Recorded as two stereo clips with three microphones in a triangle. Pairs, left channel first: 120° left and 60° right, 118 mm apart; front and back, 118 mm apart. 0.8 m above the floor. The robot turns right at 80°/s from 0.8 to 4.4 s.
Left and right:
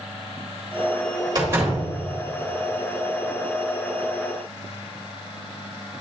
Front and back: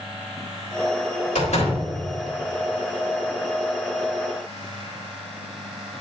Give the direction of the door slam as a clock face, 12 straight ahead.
12 o'clock.